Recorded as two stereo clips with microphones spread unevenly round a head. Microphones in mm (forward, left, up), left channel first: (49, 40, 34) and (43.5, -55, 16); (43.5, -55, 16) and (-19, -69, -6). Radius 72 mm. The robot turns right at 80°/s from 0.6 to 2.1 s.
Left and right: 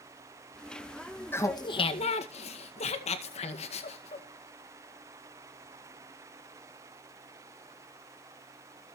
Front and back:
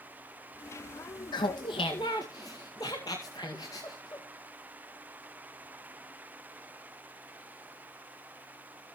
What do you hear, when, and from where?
1.3 s laughter: 20° left, 2 m; by 4.3 s 80° left, 2 m